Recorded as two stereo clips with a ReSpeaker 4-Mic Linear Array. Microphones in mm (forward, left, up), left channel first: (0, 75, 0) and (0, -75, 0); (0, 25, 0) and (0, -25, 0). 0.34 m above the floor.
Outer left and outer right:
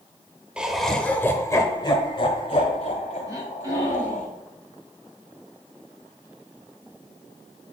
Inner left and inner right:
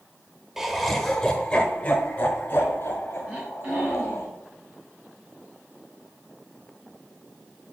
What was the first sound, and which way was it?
Laughter, 5° right (ahead or behind).